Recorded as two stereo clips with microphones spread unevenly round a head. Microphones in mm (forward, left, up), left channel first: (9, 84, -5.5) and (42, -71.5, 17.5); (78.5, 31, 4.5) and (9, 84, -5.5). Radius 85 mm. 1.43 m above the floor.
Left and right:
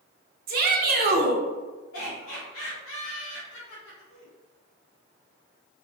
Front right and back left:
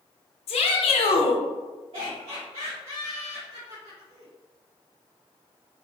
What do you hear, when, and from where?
0.5 s a shout: 45° right, 0.8 m
1.9 s laughter: 120° left, 1.5 m